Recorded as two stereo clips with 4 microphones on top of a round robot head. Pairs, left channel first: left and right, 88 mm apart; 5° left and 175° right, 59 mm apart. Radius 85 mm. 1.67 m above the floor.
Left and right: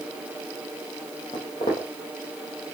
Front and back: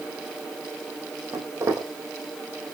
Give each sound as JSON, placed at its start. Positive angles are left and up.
{"t": 1.3, "sound": "footsteps", "azimuth_deg": 145, "distance_m": 4.5}